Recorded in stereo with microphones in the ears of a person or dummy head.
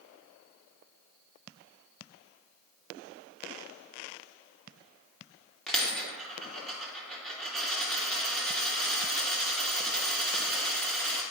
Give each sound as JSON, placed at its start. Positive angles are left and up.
{"t": 5.7, "sound": "a dropped coin", "side_deg": 0, "distance_m": 2.5}